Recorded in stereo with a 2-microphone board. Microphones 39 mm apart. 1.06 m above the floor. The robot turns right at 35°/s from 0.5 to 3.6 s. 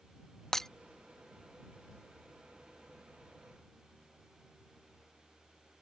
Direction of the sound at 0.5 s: 15° left (ahead or behind).